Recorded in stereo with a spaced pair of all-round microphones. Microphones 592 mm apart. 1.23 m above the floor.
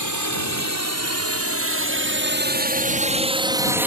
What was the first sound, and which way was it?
A drone, 30° right (ahead or behind).